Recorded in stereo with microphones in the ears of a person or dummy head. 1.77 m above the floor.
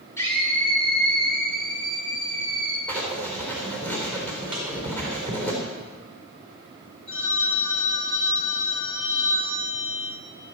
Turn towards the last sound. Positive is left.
turn(degrees=40)  # may be behind; listen again after turning